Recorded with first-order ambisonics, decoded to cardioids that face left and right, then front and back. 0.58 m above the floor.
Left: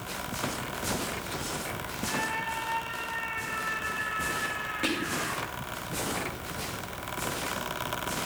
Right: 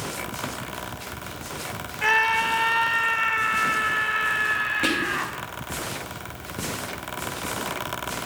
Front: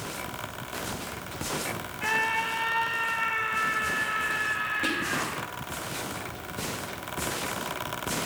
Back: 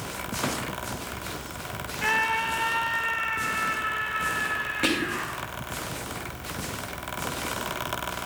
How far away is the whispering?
About 0.6 m.